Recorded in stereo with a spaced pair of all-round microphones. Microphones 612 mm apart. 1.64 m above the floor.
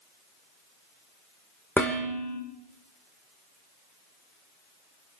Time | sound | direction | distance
1.8 | dishes clattering | 5° left (ahead or behind) | 4.5 m